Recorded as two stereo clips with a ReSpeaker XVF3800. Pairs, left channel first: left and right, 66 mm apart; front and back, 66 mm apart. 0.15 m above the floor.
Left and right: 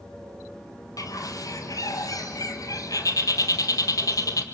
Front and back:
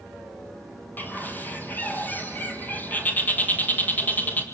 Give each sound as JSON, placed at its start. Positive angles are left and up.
{"t": 1.0, "sound": "a bird", "azimuth_deg": 60, "distance_m": 1.6}